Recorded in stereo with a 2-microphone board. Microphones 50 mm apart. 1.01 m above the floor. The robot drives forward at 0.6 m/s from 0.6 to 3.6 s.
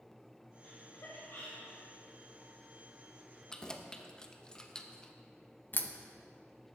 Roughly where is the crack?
Left.